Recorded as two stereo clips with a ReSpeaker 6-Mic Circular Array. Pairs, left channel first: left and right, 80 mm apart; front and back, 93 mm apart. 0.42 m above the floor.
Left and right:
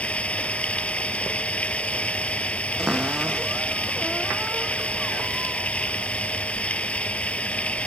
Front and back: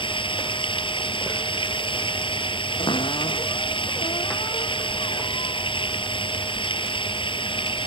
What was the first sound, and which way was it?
Running water, 15° left.